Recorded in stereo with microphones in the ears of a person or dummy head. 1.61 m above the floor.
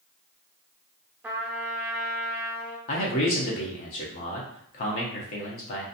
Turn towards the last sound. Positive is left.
turn(degrees=35)  # may be behind; listen again after turning